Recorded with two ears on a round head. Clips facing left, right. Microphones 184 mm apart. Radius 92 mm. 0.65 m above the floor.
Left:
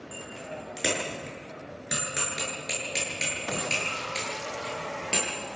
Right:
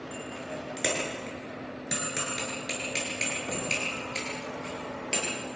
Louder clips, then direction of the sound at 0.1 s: Right 1 dB; 5° left (ahead or behind).